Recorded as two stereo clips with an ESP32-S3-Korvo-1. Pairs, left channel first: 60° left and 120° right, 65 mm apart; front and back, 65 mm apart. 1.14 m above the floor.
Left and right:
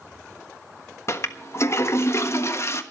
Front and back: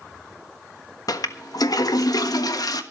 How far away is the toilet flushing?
About 1.2 m.